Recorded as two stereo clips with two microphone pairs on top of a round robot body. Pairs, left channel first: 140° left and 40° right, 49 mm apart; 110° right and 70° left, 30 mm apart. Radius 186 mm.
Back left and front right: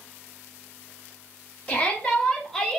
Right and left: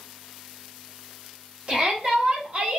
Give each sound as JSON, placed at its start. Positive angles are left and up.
{"t": 1.7, "sound": "a shout", "azimuth_deg": 110, "distance_m": 1.5}